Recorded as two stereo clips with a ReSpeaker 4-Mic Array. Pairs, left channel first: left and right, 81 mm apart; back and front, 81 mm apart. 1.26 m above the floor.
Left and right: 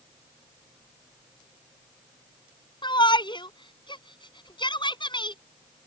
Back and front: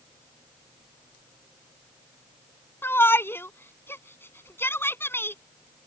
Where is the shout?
115° left.